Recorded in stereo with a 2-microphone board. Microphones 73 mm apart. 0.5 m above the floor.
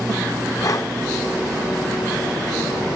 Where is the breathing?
50° left (ahead or behind), 0.8 m.